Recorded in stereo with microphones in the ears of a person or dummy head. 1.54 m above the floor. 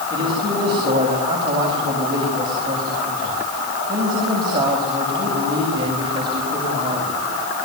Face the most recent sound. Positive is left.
turn(degrees=-30)  # may be behind; listen again after turning